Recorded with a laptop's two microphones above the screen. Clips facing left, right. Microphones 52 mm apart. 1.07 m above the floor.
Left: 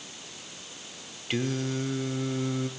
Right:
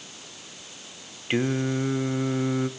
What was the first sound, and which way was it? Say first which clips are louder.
Singing: right 5 dB; 30° right (ahead or behind).